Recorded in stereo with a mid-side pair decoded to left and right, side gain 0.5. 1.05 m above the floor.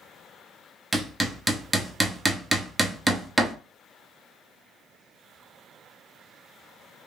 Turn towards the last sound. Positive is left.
turn(degrees=-15)